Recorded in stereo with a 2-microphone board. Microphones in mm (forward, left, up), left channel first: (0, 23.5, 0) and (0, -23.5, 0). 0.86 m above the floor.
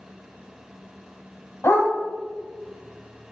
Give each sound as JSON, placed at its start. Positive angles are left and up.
{"t": 1.6, "sound": "a dog barking", "side_deg": 60, "distance_m": 2.5}